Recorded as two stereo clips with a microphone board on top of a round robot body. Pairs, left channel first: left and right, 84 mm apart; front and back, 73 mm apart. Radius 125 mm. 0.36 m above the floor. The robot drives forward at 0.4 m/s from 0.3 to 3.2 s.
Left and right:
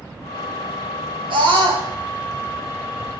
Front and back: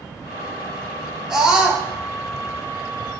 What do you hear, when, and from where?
1.3 s a scream: 100° right, 4 m